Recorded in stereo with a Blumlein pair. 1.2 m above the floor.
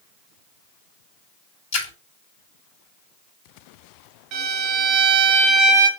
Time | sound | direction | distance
1.7 | a splash | 45° left | 3.5 m
4.3 | a violin | 35° right | 1.8 m